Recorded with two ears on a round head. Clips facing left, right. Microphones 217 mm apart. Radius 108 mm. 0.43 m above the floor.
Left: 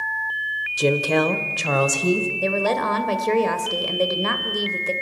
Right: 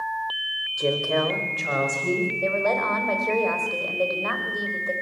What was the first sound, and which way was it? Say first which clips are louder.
A woman speaking: left 4 dB; 45° left (ahead or behind).